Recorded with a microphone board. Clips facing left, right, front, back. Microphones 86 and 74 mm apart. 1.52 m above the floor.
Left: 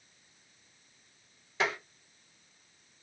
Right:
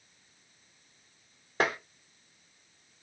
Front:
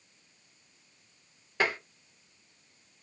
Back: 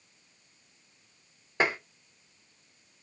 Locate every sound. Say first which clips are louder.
1.6 s tapping: right 3 dB, back 2 dB; 115° right, 1.2 m